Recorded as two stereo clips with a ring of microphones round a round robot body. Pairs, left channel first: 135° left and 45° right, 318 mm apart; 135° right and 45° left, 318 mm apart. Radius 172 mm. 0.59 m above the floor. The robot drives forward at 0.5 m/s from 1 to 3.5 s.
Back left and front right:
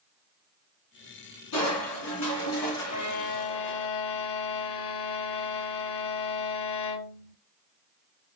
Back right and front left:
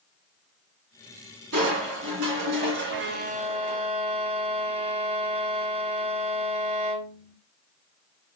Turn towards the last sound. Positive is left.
turn(degrees=120)